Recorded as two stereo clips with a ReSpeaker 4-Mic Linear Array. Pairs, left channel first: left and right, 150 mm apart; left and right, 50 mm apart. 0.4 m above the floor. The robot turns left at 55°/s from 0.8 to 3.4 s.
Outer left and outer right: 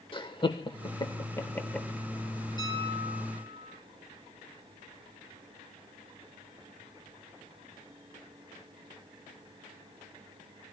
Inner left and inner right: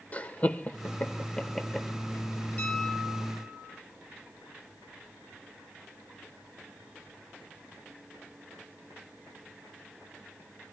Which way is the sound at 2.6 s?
30° left.